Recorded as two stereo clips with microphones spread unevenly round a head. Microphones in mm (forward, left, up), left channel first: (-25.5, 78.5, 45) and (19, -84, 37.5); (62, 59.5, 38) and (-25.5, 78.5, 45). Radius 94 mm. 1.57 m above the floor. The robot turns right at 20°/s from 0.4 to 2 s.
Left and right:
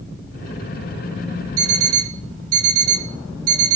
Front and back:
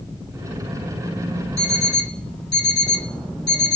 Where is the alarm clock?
90° right, 2.5 m; by 3.8 s 85° right, 2.5 m.